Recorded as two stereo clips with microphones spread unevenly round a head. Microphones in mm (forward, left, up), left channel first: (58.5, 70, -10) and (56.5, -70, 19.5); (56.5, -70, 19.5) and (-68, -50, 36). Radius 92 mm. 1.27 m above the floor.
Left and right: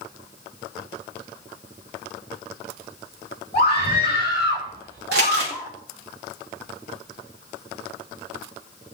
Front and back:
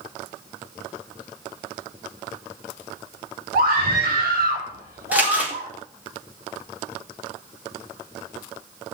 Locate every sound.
3.5 s a scream: 145° left, 3 m; by 5.7 s 170° left, 3.5 m
5.1 s crumpling: 110° right, 6 m